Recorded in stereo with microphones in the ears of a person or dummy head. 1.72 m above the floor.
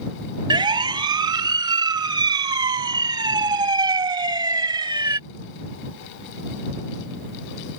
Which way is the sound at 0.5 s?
25° right (ahead or behind).